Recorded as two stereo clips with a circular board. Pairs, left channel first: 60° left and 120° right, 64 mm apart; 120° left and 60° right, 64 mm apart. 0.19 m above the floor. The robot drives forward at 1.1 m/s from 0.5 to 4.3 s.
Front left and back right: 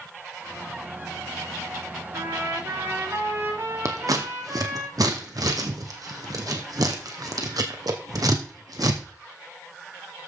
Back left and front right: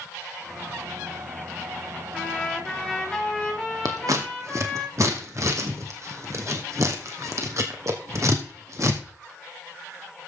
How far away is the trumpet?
About 2.5 m.